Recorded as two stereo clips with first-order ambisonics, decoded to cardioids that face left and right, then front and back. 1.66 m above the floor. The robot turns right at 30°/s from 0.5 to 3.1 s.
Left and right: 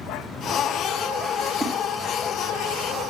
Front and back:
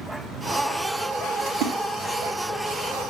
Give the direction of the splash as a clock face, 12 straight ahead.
6 o'clock.